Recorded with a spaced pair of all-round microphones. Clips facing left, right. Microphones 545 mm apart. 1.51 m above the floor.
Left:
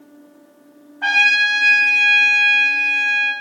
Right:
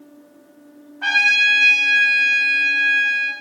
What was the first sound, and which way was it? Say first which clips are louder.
A trumpet: left 4 dB; 30° right (ahead or behind).